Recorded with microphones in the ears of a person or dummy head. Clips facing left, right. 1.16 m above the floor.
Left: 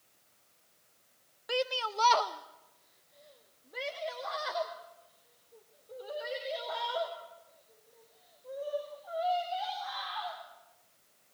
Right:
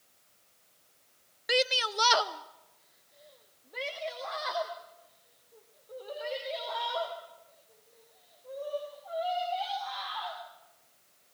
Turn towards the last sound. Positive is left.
turn(degrees=5)  # may be behind; listen again after turning